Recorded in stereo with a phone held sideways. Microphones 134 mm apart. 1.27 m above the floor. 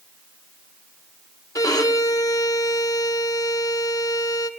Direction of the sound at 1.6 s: 25° left (ahead or behind).